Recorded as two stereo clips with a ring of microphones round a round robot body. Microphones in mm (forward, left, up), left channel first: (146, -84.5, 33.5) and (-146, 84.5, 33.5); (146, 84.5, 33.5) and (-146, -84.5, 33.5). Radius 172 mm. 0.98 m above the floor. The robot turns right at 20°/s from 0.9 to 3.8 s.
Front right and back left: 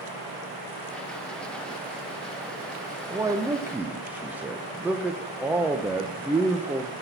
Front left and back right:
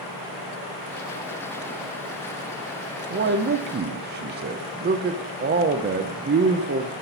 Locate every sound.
3.1 s a man speaking: 145° right, 0.5 m; by 6.9 s 130° right, 0.5 m